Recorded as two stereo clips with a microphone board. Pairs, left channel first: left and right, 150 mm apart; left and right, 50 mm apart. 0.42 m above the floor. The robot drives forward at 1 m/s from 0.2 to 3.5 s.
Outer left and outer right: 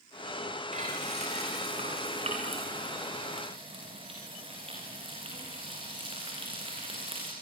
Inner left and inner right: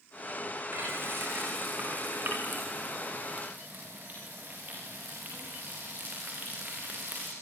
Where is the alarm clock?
No alarm clock in this recording.